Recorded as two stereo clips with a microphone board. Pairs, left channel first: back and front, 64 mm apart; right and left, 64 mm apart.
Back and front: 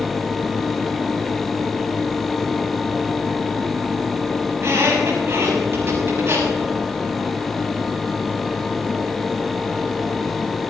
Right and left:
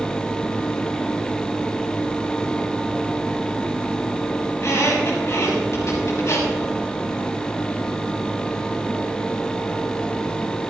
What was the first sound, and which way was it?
A squeak, 50° right.